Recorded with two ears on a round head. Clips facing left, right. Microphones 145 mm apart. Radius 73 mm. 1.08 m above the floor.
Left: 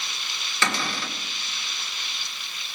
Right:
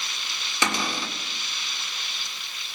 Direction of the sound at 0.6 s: 15° right (ahead or behind).